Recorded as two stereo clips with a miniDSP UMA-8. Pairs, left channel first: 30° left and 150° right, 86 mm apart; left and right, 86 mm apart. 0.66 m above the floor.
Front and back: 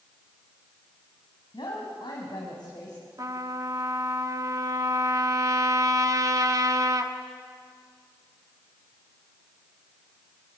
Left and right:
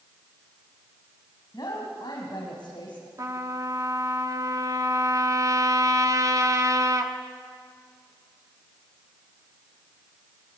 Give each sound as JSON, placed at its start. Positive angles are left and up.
{"t": 1.5, "sound": "a woman speaking", "azimuth_deg": 50, "distance_m": 4.5}
{"t": 3.2, "sound": "a trumpet", "azimuth_deg": -120, "distance_m": 1.5}